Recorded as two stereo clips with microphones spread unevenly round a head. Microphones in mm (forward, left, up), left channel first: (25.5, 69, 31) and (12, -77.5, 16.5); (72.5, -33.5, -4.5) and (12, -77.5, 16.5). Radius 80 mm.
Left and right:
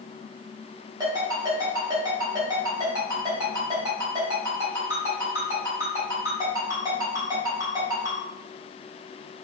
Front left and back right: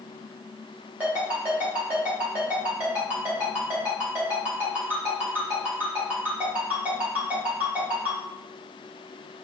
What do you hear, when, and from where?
1.0 s a ringtone: 160° right, 1.0 m